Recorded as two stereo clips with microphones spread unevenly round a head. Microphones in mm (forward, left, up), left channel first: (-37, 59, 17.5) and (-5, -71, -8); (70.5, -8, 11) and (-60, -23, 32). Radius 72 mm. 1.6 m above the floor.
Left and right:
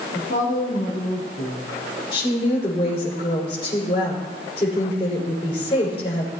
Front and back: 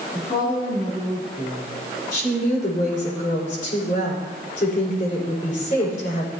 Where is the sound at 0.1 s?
70° left, 3.5 m.